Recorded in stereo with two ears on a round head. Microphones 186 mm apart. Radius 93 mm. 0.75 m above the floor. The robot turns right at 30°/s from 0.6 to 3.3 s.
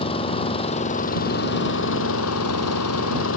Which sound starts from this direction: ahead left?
An engine running, at 0.0 s.